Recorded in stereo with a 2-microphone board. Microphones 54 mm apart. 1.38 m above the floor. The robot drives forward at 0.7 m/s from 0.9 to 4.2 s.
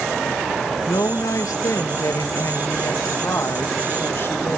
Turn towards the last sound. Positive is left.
turn(degrees=50)  # may be behind; listen again after turning